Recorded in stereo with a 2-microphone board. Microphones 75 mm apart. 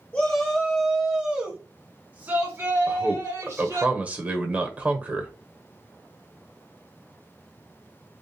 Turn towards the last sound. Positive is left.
turn(degrees=-20)  # may be behind; listen again after turning